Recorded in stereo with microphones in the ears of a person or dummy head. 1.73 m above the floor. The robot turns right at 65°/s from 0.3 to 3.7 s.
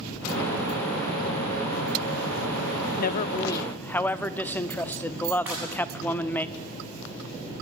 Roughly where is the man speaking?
Behind left.